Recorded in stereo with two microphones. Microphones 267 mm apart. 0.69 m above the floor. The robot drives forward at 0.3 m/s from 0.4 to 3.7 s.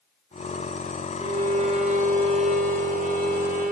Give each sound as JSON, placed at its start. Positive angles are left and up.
{"t": 1.2, "sound": "a violin", "side_deg": -25, "distance_m": 3.0}